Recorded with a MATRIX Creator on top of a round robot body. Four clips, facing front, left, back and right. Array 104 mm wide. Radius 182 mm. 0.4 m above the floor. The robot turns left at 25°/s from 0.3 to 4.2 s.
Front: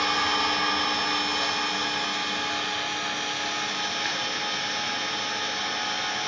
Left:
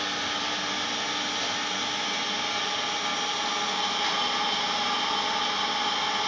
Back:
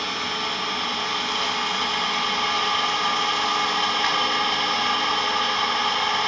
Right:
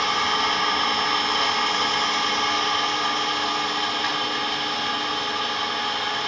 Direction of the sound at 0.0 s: 75° right.